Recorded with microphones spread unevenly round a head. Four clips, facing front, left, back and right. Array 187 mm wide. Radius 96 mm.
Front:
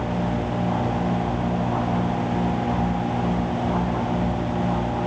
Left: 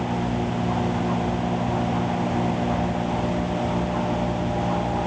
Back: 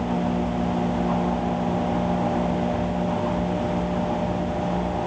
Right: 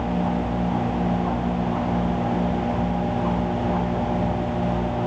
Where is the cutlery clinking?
No cutlery clinking in this recording.